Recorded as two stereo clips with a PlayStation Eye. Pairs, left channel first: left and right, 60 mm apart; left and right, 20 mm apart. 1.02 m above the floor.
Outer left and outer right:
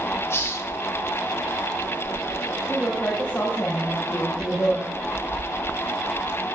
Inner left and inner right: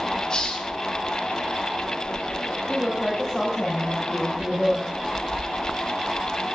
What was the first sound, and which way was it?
A hiss, 45° left (ahead or behind).